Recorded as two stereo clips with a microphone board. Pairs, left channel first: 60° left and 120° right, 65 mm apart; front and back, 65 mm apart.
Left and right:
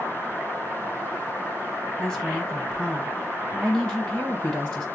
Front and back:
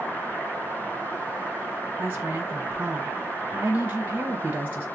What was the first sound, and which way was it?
A woman speaking, 130° left.